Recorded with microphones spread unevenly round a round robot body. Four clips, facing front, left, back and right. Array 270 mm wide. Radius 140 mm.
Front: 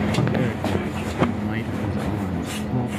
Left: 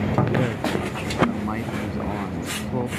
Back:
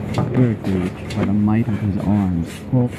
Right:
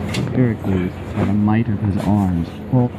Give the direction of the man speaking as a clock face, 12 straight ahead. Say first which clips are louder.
Right 6 dB, back 4 dB; 5 o'clock.